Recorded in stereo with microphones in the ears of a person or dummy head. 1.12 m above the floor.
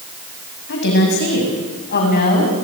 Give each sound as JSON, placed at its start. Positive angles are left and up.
{"t": 0.7, "sound": "a woman speaking", "side_deg": 65, "distance_m": 7.0}